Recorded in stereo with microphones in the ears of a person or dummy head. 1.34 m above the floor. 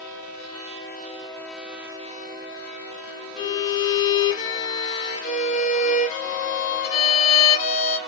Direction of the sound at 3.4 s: 40° left (ahead or behind).